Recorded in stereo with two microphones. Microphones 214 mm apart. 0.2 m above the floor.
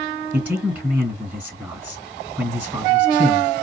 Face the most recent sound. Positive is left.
turn(degrees=-10)  # may be behind; listen again after turning